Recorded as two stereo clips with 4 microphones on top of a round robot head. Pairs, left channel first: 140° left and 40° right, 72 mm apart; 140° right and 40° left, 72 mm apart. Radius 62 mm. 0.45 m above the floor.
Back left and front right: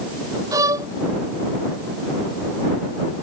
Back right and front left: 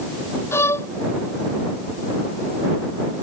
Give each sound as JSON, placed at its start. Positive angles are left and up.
{"t": 0.5, "sound": "a violin", "azimuth_deg": -85}